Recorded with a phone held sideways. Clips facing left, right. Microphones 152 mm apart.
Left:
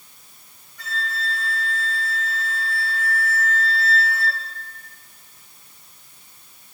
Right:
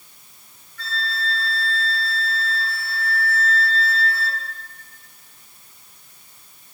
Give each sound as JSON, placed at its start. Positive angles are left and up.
{"t": 0.8, "sound": "a flute", "side_deg": 15, "distance_m": 2.0}